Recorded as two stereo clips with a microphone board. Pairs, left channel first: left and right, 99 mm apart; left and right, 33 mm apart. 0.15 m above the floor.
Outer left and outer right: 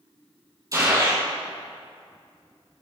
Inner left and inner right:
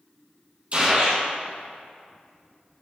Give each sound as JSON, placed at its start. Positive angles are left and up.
{"t": 0.7, "sound": "a gunshot", "side_deg": -35, "distance_m": 3.5}